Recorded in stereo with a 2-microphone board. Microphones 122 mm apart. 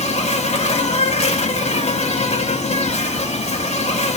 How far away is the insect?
About 0.9 m.